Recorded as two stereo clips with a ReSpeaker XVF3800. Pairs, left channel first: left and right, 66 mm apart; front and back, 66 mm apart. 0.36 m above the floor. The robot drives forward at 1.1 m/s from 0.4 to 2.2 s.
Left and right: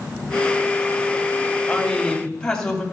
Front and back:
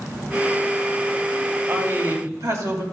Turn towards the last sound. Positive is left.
turn(degrees=165)